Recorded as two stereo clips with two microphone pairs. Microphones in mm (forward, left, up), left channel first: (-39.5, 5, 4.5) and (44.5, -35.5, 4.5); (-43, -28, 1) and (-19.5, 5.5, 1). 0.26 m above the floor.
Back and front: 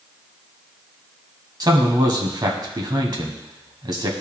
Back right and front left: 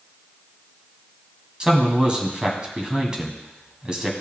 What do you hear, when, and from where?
1.6 s a man speaking: 10° right, 1.5 m